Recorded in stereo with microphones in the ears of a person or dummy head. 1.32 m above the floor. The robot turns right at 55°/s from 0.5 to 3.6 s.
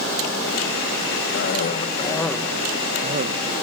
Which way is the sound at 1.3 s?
120° left.